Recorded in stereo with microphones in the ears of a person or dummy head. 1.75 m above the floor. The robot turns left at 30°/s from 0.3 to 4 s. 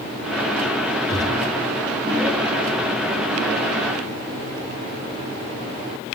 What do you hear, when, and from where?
1.1 s a gunshot: 25° left (ahead or behind), 6.5 m; by 1.6 s 40° left (ahead or behind), 6.5 m